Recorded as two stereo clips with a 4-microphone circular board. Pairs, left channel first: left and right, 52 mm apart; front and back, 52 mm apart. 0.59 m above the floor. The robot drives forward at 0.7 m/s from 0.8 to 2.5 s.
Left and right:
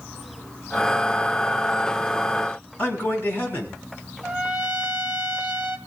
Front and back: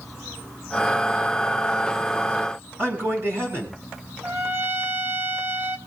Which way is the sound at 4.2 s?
150° right.